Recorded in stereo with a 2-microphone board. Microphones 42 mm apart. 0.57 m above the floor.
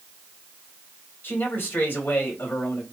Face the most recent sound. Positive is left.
turn(degrees=50)  # may be behind; listen again after turning